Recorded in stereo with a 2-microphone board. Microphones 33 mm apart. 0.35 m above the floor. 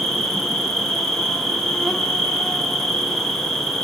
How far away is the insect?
About 0.7 m.